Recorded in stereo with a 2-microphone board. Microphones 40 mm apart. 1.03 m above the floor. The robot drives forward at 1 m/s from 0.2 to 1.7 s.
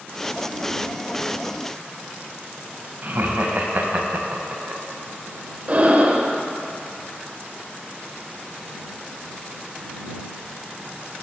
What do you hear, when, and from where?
3.0 s laughter: 50° right (ahead or behind), 0.8 m
5.7 s breathing: 35° right (ahead or behind), 0.6 m